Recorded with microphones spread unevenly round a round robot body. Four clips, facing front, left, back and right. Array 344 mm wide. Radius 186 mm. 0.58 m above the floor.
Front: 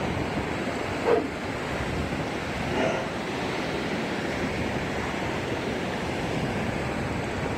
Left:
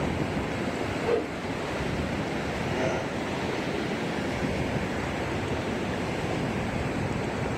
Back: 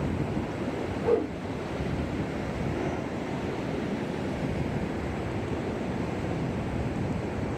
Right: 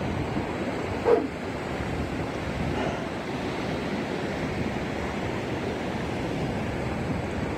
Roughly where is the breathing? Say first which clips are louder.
Left 2 dB, front 7 dB; ahead.